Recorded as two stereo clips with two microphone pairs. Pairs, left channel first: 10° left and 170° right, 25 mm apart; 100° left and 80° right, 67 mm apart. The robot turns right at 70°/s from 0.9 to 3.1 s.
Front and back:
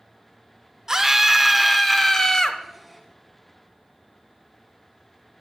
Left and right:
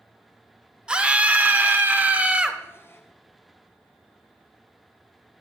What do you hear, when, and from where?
0.9 s a scream: 140° right, 0.8 m; by 2.6 s 20° right, 0.8 m